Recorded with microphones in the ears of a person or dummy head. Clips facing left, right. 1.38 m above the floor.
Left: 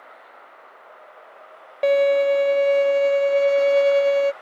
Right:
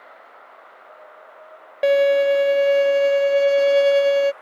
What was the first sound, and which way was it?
A violin, 10° right (ahead or behind).